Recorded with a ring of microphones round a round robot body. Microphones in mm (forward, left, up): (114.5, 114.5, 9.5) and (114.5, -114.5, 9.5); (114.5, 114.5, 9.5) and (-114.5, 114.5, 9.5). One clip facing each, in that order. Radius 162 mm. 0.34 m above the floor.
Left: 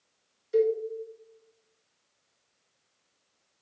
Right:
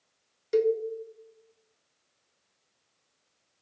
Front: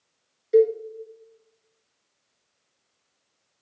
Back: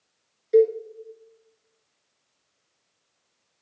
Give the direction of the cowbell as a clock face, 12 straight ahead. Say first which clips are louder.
Even, even; 3 o'clock.